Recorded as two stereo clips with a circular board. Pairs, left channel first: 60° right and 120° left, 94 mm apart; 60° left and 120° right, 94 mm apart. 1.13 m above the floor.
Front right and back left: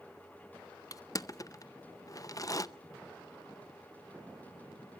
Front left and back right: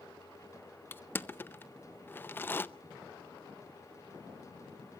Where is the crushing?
10° right, 0.6 m.